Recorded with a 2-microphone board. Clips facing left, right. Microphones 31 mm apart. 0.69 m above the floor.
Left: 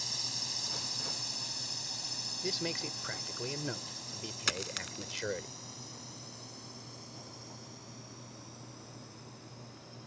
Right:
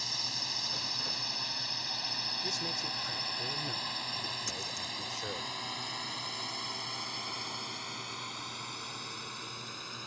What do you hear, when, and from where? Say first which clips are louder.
0.0 s a drone: right 3 dB; 20° right (ahead or behind); by 10.1 s 80° right
2.4 s a man speaking: right 1 dB; 30° left (ahead or behind)
4.5 s a dropped coin: left 2 dB; 70° left (ahead or behind)